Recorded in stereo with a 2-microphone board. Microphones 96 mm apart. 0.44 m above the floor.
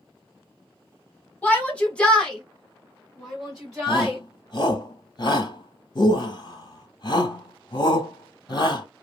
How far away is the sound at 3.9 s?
About 1.8 m.